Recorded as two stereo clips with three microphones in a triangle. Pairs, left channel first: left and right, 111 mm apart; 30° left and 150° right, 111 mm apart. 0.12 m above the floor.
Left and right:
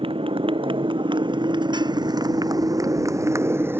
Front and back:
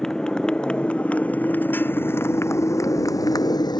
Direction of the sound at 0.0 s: 55° right.